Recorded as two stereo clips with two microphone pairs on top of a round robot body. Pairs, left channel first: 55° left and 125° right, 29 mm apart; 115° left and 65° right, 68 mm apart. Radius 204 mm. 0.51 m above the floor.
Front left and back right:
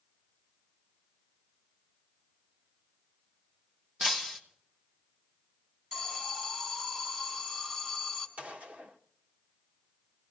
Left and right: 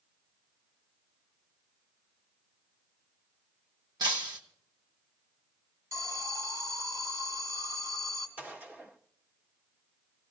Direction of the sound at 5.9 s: 55° right.